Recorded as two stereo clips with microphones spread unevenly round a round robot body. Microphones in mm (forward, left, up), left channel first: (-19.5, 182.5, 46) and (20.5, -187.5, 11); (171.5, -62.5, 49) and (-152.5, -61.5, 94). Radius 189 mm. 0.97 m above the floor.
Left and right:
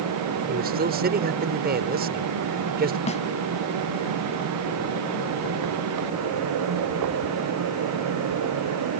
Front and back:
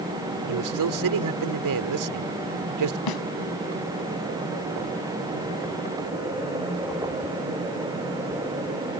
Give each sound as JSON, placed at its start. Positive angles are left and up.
{"t": 0.5, "sound": "a man speaking", "azimuth_deg": -150}
{"t": 3.1, "sound": "a snare drum", "azimuth_deg": 25}